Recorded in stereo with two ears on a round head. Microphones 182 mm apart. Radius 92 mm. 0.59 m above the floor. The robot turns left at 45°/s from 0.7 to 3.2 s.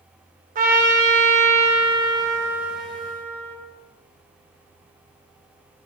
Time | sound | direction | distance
0.6 | a trumpet | 85° right | 0.6 m